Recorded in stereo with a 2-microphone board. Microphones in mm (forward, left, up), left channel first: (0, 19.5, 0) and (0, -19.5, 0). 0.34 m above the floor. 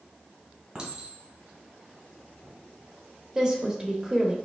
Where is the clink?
25° right (ahead or behind), 1.9 m.